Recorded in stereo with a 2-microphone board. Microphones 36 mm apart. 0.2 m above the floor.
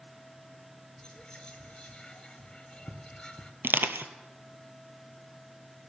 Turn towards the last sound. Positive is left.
turn(degrees=-80)